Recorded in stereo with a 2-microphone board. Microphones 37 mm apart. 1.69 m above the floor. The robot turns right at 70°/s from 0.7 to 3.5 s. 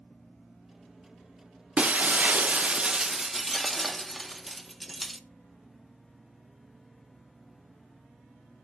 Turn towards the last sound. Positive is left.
turn(degrees=5)